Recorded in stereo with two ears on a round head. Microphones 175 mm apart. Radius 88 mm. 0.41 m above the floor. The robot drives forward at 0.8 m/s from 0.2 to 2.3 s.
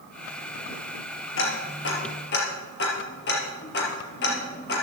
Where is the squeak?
I don't hear a squeak.